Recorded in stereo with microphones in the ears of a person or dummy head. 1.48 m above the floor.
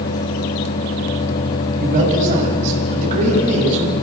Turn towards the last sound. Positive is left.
turn(degrees=-40)  # may be behind; listen again after turning